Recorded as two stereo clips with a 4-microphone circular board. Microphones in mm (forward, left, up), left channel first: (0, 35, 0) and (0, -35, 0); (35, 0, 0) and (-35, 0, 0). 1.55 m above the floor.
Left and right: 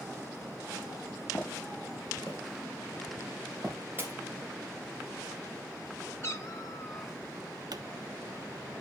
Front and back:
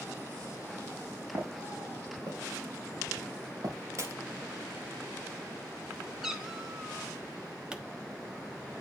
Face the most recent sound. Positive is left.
turn(degrees=-105)